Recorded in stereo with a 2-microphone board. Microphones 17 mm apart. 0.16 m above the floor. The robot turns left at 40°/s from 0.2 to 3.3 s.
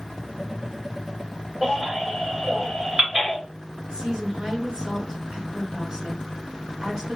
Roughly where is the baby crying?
Right.